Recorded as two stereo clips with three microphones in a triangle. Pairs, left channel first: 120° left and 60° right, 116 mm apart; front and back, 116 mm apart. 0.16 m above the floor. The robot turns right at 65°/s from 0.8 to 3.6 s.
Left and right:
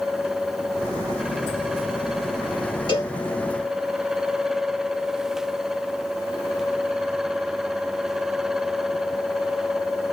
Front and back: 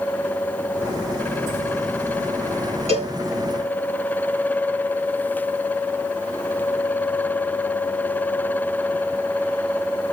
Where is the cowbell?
165° left, 3.5 m; by 3.1 s straight behind, 3.5 m.